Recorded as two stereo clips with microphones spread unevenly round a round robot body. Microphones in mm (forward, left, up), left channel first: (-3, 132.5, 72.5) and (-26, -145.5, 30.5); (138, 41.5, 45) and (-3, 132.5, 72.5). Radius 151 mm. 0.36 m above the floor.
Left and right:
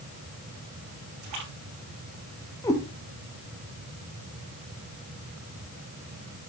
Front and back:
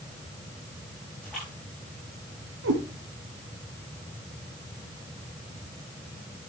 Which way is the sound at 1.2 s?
120° right.